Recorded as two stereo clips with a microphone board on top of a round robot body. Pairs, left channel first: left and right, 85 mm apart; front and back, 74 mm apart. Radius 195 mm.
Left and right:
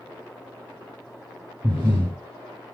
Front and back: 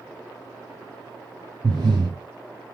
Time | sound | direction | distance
1.6 | breathing | 155° right | 0.8 m